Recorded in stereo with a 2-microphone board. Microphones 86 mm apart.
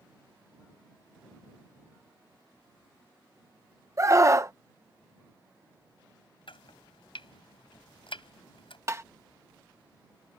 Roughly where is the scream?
Right.